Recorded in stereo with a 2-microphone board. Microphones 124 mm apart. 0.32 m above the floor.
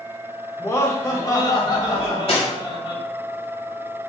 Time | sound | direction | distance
0.6 | laughter | 20° left (ahead or behind) | 0.9 m
1.9 | cutlery clinking | 50° left (ahead or behind) | 1.9 m